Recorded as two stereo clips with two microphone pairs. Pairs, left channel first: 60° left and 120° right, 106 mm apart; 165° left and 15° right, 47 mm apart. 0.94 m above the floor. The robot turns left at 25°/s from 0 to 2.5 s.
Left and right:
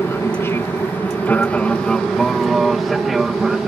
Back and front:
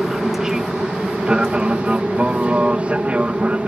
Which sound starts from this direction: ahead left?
An aircraft, at 0.0 s.